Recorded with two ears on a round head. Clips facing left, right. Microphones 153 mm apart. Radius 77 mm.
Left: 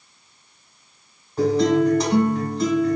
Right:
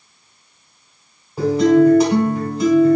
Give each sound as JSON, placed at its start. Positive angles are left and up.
{"t": 1.4, "sound": "a guitar", "side_deg": -10, "distance_m": 2.0}